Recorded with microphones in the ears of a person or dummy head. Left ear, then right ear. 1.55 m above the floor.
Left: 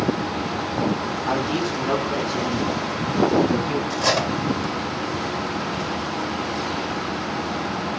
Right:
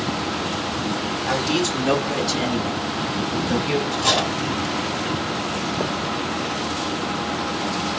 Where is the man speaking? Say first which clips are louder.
Right 2 dB; 10° right (ahead or behind), 1.9 m; by 3.8 s 55° right (ahead or behind), 1.3 m.